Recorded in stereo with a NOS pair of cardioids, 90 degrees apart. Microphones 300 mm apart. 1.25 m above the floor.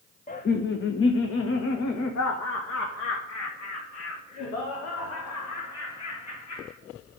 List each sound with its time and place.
0.3 s laughter: 30° left, 0.9 m; by 6.7 s 80° left, 4 m